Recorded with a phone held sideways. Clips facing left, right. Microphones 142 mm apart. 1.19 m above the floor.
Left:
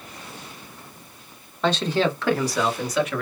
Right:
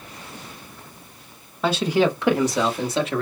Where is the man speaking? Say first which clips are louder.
Right 2 dB; 5° right (ahead or behind), 1.2 m; by 3.2 s 30° right (ahead or behind), 1.8 m.